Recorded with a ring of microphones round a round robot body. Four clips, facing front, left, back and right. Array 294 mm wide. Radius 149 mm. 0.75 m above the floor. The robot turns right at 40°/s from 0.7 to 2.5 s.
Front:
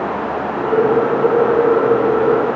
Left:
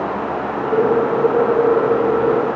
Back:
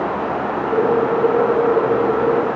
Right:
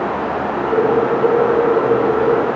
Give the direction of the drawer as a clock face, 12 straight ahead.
No drawer in this recording.